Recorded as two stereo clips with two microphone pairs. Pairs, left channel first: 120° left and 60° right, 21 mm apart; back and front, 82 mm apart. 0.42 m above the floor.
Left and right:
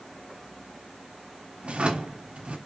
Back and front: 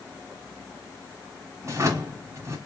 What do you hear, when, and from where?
1.6 s a drawer: 45° right, 1.2 m